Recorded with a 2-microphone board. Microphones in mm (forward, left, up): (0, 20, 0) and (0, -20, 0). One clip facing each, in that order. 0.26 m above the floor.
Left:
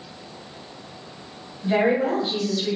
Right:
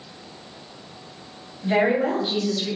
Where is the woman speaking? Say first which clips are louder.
Even; 20° right (ahead or behind), 1.4 m; by 2.8 s 5° right (ahead or behind), 1.2 m.